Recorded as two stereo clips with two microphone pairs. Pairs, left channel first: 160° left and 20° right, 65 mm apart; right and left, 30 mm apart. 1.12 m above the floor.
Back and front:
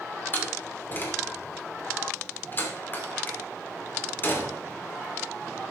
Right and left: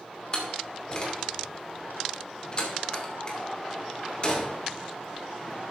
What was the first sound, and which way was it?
A door slam, 145° right.